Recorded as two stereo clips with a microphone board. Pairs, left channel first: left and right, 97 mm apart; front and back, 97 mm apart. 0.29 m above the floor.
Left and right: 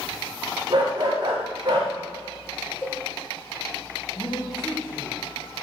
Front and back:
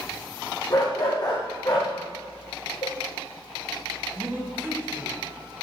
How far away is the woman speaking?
About 2 m.